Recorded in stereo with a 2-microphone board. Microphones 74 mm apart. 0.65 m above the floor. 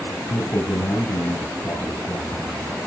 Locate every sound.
0.3 s a man speaking: 65° left (ahead or behind), 7 m